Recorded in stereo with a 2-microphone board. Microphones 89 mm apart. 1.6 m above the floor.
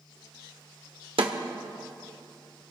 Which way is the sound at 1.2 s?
80° right.